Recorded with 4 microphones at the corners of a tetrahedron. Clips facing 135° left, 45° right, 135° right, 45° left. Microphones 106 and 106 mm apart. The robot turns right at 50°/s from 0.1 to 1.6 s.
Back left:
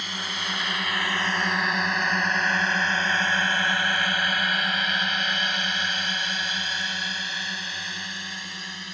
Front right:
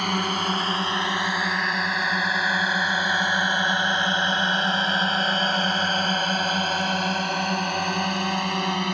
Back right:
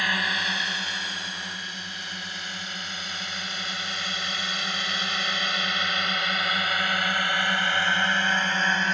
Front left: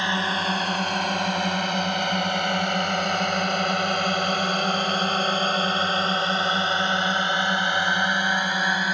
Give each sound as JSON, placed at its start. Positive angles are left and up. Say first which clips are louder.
{"t": 0.0, "sound": "a drone", "louder": "front right 9 dB, front left 4 dB", "azimuth_deg": -20}